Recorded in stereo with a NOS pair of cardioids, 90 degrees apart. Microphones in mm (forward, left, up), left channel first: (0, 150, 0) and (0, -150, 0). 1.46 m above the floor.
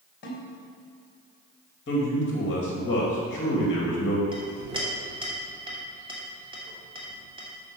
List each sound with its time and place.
0.2 s a snare drum: 35° left, 3 m
1.9 s a man speaking: 40° left, 2.5 m
4.3 s a clink: 15° right, 3 m